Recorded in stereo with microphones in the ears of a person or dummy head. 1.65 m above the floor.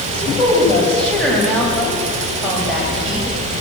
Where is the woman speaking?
10° left (ahead or behind), 9.5 m; by 3.6 s centre (ahead or behind), 8.5 m.